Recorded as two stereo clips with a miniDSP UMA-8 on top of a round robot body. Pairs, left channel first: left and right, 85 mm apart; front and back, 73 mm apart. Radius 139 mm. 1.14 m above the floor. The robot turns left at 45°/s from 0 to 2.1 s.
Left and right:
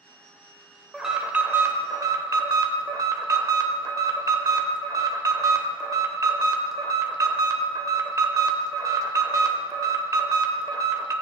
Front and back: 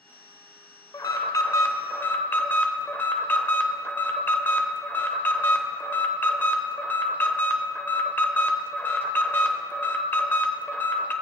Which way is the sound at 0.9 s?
5° right.